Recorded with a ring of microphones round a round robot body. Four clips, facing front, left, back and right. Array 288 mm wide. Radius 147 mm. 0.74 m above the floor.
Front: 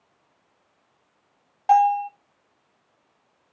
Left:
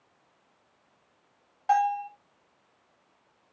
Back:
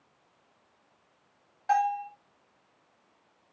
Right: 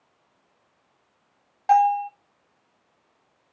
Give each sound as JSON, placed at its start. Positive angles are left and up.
{"t": 1.7, "sound": "a bell", "azimuth_deg": -35, "distance_m": 1.2}